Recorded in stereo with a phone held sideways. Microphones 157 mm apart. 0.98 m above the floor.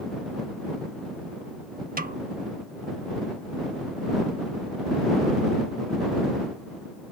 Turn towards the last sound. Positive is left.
turn(degrees=-65)  # may be behind; listen again after turning